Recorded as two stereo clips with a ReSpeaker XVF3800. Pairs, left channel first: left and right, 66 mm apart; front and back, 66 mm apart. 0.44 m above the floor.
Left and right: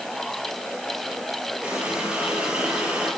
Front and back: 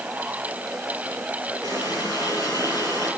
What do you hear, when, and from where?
1.6 s a running tap: 160° right, 7.5 m